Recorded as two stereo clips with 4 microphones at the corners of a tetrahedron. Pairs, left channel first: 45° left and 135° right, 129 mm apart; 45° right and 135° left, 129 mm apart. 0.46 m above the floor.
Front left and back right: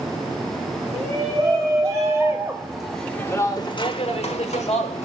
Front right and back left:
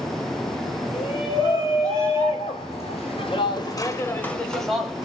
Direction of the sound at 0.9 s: 85° right.